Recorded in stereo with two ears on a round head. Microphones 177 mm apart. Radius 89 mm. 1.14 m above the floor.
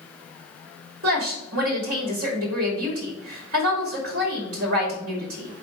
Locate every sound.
1.0 s a woman speaking: 80° right, 2.5 m